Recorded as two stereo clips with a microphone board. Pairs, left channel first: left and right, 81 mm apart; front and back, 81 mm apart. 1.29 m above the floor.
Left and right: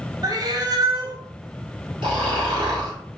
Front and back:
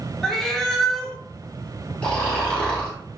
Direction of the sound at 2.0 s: 70° right.